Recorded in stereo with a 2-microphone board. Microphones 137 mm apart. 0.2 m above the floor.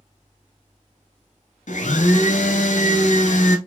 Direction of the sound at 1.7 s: 65° left (ahead or behind).